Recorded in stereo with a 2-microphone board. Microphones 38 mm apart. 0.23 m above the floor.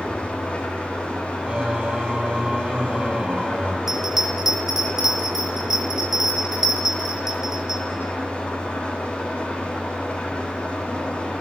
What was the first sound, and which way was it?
An engine running, 35° left (ahead or behind).